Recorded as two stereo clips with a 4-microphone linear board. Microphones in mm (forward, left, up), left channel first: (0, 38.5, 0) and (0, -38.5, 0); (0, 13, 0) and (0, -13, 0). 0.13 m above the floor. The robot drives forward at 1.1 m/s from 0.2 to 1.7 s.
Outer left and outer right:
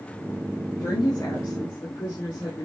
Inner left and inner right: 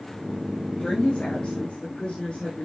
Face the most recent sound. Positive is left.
turn(degrees=30)  # may be behind; listen again after turning